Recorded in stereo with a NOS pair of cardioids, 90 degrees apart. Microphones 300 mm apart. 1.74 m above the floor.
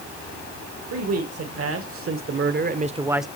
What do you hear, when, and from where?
0.9 s a man speaking: 55° right, 3 m; by 3.3 s straight ahead, 0.8 m